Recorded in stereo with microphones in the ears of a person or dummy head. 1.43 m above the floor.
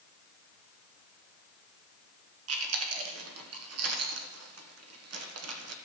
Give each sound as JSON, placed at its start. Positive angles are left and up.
{"t": 2.5, "sound": "chewing", "side_deg": -70, "distance_m": 1.4}